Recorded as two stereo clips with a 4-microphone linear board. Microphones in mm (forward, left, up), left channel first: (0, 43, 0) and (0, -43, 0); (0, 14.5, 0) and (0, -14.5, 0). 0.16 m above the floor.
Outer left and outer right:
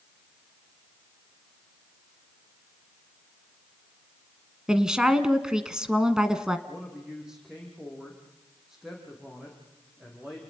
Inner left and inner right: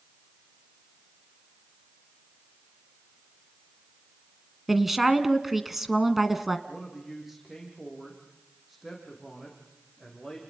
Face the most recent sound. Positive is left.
turn(degrees=-5)  # may be behind; listen again after turning